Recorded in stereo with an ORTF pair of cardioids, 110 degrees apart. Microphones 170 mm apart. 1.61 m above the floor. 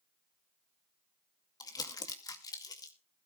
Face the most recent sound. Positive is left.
turn(degrees=20)